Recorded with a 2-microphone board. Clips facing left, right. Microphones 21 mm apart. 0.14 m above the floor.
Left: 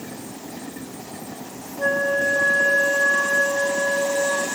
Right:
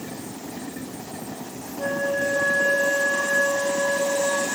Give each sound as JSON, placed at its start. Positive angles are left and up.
{"t": 1.8, "sound": "a flute", "side_deg": 30, "distance_m": 7.0}